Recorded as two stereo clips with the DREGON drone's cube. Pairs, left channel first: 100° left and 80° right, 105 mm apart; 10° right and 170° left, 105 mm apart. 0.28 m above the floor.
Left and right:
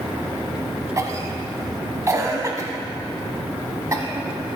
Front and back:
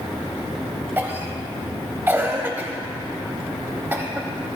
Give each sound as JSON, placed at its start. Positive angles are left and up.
{"t": 1.0, "sound": "a cough", "azimuth_deg": -125, "distance_m": 1.7}